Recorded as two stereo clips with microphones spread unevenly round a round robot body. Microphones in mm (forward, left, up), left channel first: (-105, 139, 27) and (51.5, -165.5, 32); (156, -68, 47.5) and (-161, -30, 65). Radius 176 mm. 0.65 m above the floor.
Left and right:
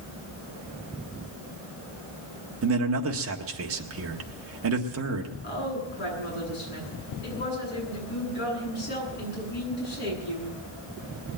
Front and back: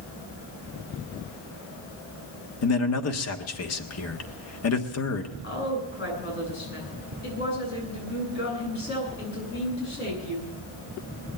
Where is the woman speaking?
55° left, 9.5 m.